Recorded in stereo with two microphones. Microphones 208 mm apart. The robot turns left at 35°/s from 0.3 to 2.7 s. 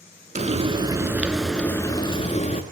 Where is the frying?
140° right, 0.6 m; by 2.6 s 140° left, 0.6 m.